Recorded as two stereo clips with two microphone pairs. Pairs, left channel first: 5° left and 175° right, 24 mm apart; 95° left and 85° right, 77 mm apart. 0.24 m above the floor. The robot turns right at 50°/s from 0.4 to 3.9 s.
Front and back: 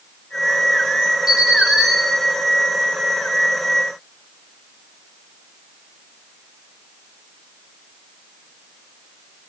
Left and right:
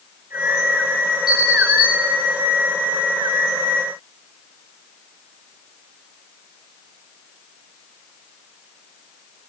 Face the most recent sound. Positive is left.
turn(degrees=-110)